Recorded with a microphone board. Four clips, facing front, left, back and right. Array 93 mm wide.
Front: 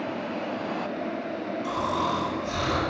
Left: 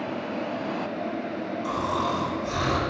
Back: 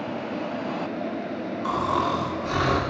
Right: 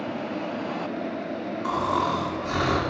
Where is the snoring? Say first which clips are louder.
Right 3 dB, back 4 dB; 135° right, 2.5 m.